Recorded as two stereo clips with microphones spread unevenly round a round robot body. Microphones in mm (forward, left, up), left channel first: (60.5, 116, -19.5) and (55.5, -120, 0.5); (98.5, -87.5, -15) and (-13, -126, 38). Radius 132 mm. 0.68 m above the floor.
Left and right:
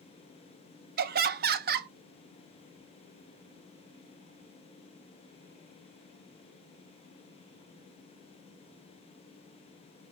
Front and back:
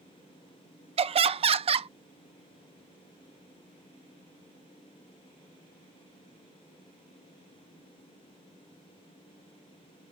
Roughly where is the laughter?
Behind right.